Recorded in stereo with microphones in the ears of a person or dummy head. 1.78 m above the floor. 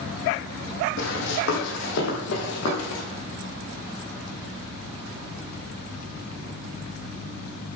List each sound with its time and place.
1.0 s running footsteps: 70° left (ahead or behind), 5.5 m; by 3.0 s 55° left (ahead or behind), 3.5 m